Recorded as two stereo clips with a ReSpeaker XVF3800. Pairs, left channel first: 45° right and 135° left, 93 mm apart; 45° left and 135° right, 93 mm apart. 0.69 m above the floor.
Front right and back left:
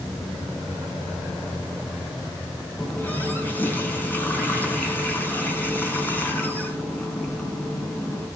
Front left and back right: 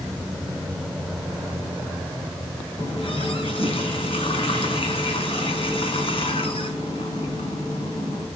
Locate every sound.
2.8 s a running tap: 25° left, 5 m